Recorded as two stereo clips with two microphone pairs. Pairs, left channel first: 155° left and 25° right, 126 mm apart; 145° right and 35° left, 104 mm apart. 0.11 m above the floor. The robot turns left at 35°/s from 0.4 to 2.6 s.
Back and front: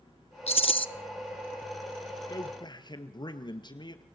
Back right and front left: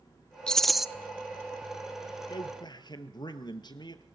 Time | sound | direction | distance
0.5 | a rattle | 130° left | 0.5 m
2.3 | a man speaking | 155° right | 2.0 m